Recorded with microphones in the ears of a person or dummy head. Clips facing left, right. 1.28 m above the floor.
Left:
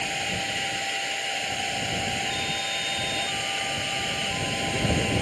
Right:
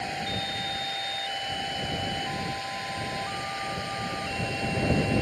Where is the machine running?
45° left (ahead or behind).